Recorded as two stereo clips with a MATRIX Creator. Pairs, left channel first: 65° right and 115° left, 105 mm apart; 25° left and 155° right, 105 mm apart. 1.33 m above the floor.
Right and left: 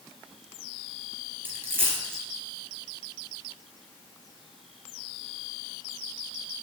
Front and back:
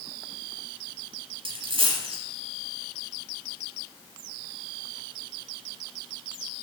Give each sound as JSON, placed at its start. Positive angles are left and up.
{"t": 1.4, "sound": "a dropped coin", "azimuth_deg": 180, "distance_m": 3.5}